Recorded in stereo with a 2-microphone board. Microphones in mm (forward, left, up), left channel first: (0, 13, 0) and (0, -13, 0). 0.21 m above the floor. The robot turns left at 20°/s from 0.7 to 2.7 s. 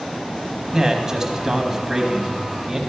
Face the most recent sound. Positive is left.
turn(degrees=-20)  # may be behind; listen again after turning